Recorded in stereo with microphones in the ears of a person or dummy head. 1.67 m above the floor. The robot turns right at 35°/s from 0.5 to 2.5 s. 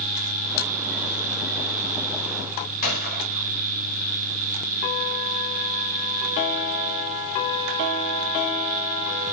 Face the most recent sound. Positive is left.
turn(degrees=50)  # may be behind; listen again after turning